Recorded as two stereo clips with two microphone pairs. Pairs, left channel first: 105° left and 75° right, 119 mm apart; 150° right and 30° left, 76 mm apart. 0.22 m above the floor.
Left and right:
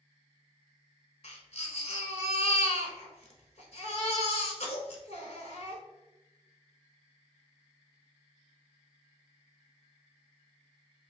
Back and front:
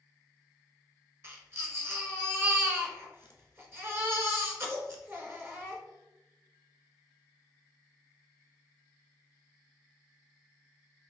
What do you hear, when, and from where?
1.2 s a baby crying: 85° left, 0.9 m